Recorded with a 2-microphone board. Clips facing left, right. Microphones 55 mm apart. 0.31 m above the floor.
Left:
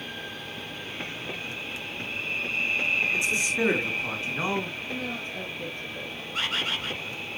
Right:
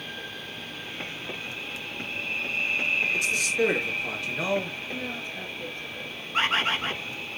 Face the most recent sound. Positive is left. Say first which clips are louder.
# right 5 dB
turn(degrees=-35)  # may be behind; listen again after turning